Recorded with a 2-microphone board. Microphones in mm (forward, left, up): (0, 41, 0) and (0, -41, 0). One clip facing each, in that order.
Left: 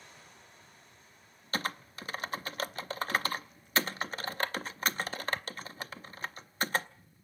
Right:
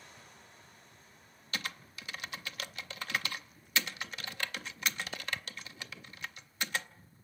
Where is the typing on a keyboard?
40° left (ahead or behind), 0.6 m.